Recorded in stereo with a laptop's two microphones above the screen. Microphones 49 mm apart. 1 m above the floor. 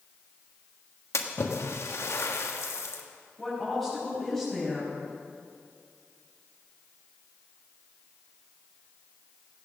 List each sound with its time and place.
1.1 s a splash: 75° left (ahead or behind), 1.3 m
3.4 s a woman speaking: 5° left (ahead or behind), 5 m